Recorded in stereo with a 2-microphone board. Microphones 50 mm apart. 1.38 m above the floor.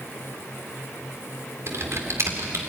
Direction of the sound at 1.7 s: 75° right (ahead or behind).